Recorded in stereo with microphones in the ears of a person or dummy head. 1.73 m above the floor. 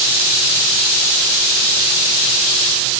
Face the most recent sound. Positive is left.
No sound to turn to.